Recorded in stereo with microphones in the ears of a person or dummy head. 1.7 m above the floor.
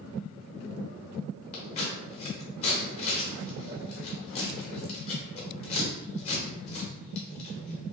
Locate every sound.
1.5 s scissors: 40° left (ahead or behind), 0.9 m